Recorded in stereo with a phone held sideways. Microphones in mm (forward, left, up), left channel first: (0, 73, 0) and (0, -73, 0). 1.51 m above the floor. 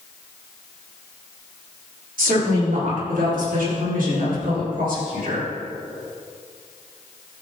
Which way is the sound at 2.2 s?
80° right.